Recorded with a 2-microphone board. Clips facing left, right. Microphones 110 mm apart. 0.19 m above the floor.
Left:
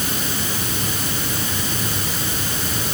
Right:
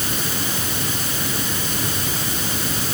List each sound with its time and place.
Only background noise.